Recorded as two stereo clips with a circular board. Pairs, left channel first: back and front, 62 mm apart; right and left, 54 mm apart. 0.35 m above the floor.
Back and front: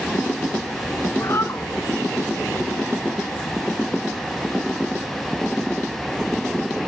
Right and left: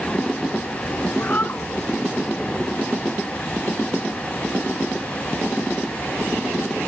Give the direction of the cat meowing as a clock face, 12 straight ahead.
5 o'clock.